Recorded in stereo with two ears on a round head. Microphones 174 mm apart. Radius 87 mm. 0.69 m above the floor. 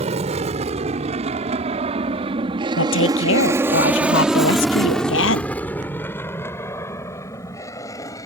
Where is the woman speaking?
70° left (ahead or behind).